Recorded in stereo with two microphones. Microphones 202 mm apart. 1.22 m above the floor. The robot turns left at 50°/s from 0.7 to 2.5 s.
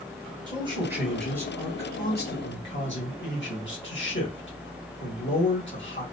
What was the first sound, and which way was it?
A man speaking, 155° right.